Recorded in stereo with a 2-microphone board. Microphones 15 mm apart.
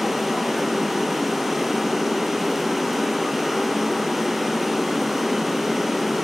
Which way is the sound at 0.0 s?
20° right (ahead or behind).